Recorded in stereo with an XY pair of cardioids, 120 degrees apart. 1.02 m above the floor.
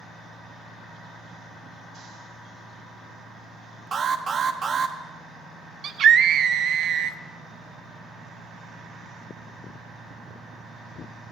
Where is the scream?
50° right, 0.9 m.